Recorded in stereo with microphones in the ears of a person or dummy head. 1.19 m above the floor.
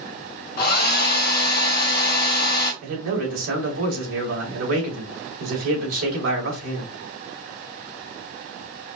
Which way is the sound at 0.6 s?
55° left (ahead or behind).